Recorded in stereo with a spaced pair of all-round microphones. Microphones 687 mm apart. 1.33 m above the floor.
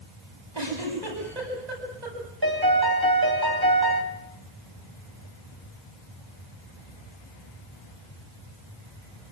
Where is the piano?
30° right (ahead or behind), 3.5 m.